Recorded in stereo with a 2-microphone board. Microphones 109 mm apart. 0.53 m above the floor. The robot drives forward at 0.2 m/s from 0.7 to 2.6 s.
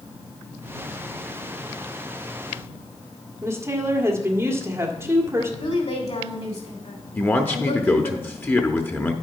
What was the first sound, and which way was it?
A woman speaking, 25° right (ahead or behind).